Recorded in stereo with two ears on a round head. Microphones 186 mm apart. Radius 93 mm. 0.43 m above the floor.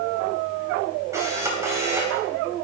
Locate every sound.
1.1 s a camera shutter: 15° right (ahead or behind), 2.5 m